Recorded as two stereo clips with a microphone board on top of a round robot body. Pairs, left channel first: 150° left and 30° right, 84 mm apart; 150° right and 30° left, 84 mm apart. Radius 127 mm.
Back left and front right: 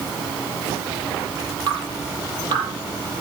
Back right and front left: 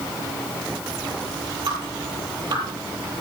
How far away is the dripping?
About 8.5 m.